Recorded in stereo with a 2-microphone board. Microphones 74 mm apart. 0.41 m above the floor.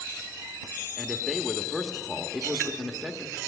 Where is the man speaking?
5° right (ahead or behind), 0.7 m.